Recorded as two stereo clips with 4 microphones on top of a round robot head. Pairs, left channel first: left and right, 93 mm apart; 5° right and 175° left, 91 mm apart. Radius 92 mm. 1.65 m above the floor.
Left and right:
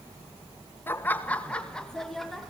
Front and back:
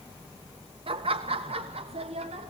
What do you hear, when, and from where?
0.9 s laughter: 155° left, 1.8 m; by 2.5 s straight behind, 2.5 m